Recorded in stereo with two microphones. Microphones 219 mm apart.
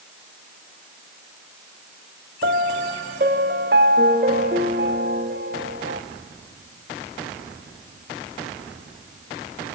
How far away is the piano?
About 1.0 m.